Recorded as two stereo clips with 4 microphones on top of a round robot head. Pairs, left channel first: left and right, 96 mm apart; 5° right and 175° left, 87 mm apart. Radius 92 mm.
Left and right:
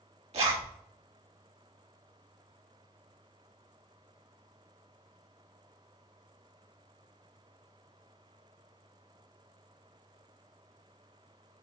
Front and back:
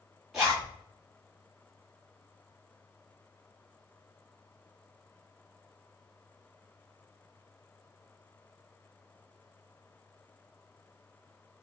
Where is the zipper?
95° right, 1.3 m.